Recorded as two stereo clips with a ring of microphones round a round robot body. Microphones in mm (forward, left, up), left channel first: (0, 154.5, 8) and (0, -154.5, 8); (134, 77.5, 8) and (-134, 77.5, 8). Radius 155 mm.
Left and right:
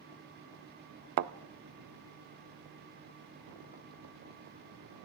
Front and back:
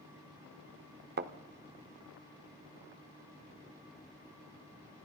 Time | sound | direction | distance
1.2 | a thud | 125° right | 0.5 m